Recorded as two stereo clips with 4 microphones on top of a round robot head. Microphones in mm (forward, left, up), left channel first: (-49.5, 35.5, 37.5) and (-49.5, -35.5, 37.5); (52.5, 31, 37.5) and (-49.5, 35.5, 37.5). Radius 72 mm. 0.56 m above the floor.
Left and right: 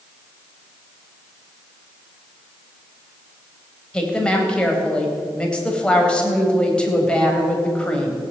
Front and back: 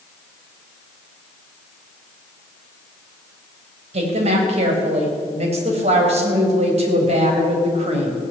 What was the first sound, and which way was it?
A woman speaking, 165° left.